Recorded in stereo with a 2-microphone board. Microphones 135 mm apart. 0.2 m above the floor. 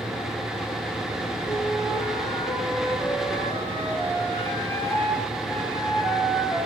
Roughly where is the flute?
Left.